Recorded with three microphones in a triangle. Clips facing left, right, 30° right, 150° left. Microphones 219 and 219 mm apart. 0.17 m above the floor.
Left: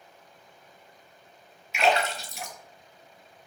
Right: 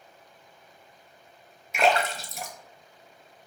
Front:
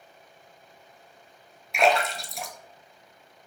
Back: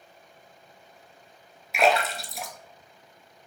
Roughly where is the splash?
Behind right.